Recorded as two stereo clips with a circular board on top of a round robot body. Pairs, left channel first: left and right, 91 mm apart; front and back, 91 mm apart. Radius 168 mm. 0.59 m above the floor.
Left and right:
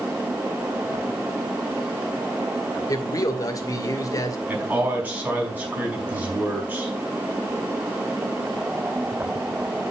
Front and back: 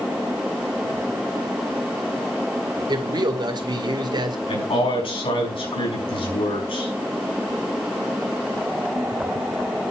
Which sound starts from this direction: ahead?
A man speaking, at 4.5 s.